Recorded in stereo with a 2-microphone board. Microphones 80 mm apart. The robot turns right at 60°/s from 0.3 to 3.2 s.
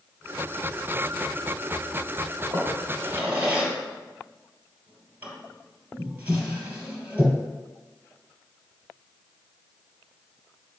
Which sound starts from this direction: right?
A drawer, at 2.5 s.